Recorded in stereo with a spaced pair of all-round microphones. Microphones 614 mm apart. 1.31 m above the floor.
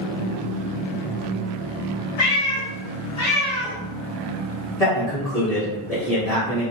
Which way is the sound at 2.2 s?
45° left (ahead or behind).